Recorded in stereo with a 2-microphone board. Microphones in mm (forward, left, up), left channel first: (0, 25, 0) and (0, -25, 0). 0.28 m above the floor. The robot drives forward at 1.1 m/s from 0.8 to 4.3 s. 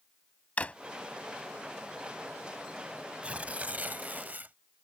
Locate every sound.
0.6 s a drawer: 30° left (ahead or behind)
3.2 s tearing paper: 25° right (ahead or behind); by 4.5 s 40° right (ahead or behind)